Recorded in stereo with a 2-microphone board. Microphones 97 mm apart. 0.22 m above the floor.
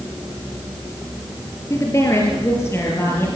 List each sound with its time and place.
1.7 s a woman speaking: 30° left (ahead or behind), 4.5 m; by 3.3 s 25° left (ahead or behind), 5.5 m